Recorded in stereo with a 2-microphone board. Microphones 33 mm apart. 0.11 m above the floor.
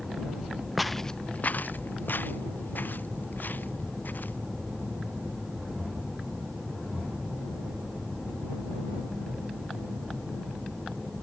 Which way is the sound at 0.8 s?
5° right (ahead or behind).